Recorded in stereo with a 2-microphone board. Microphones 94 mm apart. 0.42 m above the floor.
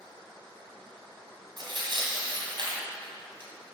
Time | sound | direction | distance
1.6 | tearing paper | 55° right (ahead or behind) | 2 m